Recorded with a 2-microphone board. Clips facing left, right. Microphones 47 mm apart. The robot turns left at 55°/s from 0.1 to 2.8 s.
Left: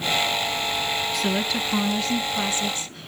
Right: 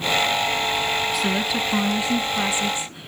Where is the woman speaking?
5° right (ahead or behind), 1.2 m; by 3.1 s 20° right (ahead or behind), 1.2 m.